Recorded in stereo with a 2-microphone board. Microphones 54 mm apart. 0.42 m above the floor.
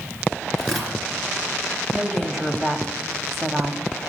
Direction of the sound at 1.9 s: Centre (ahead or behind).